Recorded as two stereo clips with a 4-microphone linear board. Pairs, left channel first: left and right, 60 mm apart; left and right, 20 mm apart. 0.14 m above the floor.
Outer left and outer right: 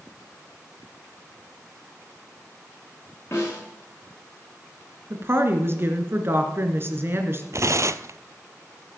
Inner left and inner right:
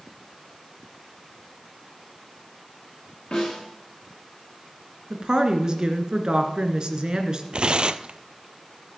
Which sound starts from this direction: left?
A snare drum, at 3.3 s.